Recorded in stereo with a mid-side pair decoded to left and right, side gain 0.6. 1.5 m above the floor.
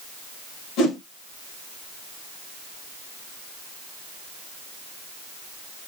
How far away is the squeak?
No squeak in this recording.